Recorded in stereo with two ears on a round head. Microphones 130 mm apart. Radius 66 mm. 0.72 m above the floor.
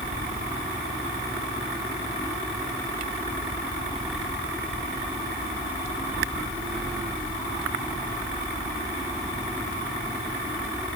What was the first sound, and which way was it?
Only background noise.